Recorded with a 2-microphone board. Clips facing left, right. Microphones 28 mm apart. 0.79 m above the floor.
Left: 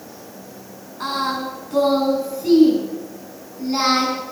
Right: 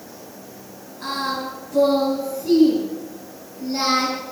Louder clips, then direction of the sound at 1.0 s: Left 2 dB; 70° left (ahead or behind).